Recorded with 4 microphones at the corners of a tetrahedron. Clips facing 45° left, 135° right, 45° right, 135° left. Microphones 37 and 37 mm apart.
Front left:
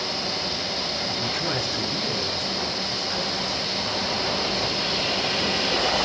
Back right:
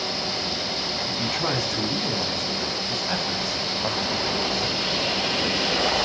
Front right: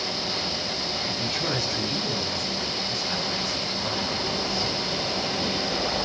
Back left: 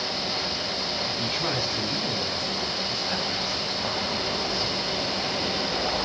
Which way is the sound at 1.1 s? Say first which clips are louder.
Back right 3 dB, front right 1 dB; 150° right.